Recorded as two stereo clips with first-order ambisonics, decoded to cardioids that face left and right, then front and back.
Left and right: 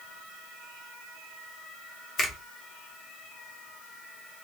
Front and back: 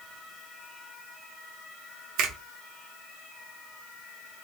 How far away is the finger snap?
About 0.8 m.